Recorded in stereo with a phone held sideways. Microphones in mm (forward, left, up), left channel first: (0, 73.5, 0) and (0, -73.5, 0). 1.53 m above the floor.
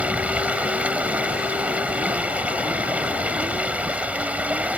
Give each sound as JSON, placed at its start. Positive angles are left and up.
{"t": 0.0, "sound": "running water", "side_deg": -10}